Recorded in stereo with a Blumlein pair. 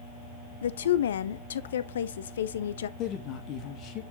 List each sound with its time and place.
0.6 s a woman speaking: 65° left, 0.6 m
3.0 s a woman speaking: 35° left, 2.0 m